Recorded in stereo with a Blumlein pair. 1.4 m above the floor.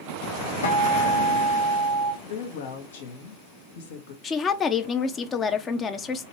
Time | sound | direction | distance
0.6 | a guitar | 70° left | 1.5 m
2.2 | a woman speaking | 55° left | 1.0 m
4.2 | a woman speaking | 20° left | 0.6 m